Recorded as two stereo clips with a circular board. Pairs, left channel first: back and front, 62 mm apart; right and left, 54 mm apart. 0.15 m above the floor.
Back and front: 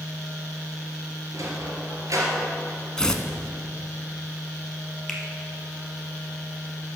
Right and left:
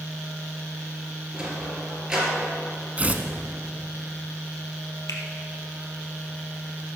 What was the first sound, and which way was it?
A sliding door, 15° left.